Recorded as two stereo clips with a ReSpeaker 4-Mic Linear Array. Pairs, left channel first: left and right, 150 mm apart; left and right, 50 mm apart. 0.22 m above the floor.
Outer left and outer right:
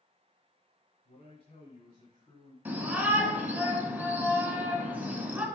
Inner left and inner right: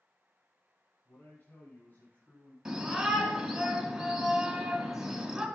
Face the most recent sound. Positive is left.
turn(degrees=-10)  # may be behind; listen again after turning